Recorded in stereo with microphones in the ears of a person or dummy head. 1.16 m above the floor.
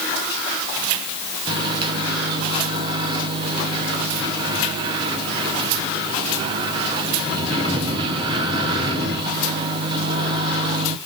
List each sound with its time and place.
1.5 s a microwave: 25° right (ahead or behind), 1.0 m